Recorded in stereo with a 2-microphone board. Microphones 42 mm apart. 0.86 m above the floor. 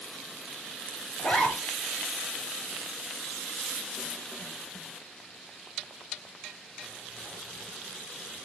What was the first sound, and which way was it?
A zipper, 35° left (ahead or behind).